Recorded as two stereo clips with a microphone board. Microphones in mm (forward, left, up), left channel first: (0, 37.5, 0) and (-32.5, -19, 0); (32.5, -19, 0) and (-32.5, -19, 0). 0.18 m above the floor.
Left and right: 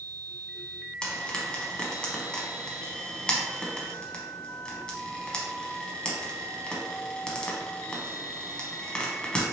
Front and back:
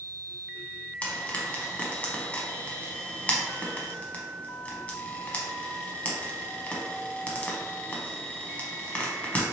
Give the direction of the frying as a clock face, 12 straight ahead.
12 o'clock.